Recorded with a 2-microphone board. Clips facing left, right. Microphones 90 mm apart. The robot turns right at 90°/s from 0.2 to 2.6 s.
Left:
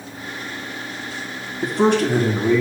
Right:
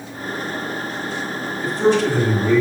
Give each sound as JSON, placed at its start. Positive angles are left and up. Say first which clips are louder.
{"t": 1.6, "sound": "a man speaking", "louder": "even", "azimuth_deg": 80, "distance_m": 1.8}